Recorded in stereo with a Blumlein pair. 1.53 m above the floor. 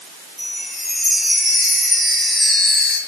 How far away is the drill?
I don't hear a drill.